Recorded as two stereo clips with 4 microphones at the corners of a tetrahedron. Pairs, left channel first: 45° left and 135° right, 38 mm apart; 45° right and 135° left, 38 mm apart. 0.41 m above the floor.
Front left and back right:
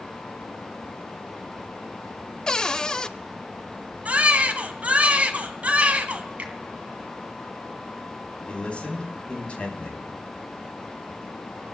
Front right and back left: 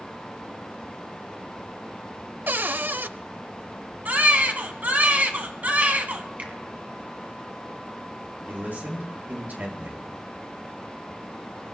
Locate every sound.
2.5 s a cupboard door: 115° left, 0.5 m
4.0 s a baby crying: 175° left, 1.6 m
6.4 s a finger snap: 175° left, 2.5 m
8.5 s a man speaking: 100° left, 4 m